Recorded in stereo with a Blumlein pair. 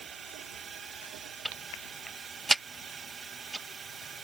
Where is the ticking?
5° right.